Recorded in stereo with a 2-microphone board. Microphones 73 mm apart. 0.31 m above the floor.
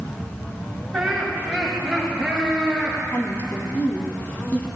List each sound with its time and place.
0.9 s laughter: centre (ahead or behind), 5 m; by 3.0 s 10° left (ahead or behind), 7.5 m
3.1 s a woman speaking: 25° left (ahead or behind), 1.9 m